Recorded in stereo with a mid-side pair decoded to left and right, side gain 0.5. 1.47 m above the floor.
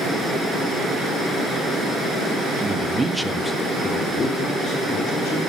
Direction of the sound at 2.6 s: 40° right.